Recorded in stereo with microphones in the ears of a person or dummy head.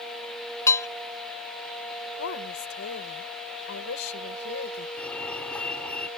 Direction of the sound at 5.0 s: 10° left (ahead or behind).